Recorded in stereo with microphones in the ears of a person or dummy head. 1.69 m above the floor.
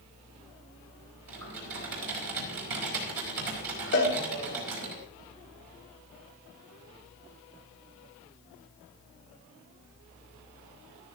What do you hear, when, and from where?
1.3 s typing on a keyboard: 75° right (ahead or behind), 4 m
3.9 s a cowbell: 35° left (ahead or behind), 3.5 m